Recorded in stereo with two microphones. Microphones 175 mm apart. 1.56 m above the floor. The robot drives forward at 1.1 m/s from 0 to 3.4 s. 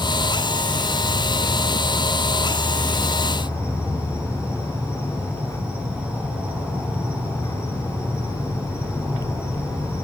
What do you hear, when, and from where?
0.0 s an insect: 5° right (ahead or behind), 8.5 m